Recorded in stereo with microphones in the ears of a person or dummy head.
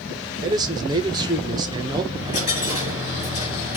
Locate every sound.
0.4 s a man speaking: 20° right (ahead or behind), 0.6 m
2.1 s a dropped coin: 45° left (ahead or behind), 3 m